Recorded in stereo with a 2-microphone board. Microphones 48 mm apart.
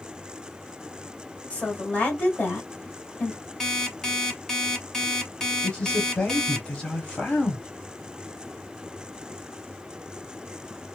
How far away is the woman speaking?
About 1.3 m.